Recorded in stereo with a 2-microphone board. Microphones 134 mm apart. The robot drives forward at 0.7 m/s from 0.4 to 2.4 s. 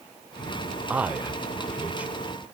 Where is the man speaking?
10° right (ahead or behind), 1.0 m.